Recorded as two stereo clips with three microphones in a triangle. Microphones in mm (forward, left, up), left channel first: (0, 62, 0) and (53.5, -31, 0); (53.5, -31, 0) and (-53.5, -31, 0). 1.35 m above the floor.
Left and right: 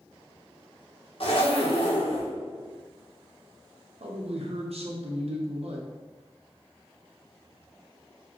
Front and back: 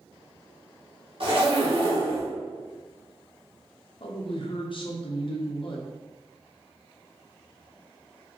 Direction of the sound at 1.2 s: 150° left.